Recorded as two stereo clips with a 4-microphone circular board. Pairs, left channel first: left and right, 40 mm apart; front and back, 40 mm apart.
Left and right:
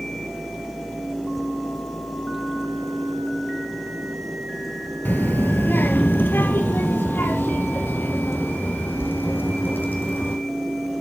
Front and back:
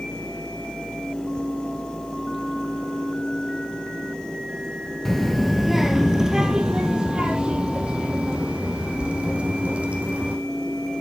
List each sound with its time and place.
5.0 s a child speaking: 80° left, 1.0 m; by 10.4 s 120° left, 3.5 m